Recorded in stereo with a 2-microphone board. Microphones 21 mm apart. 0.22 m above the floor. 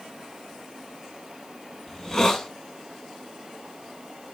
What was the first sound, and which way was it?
A hiss, 20° left (ahead or behind).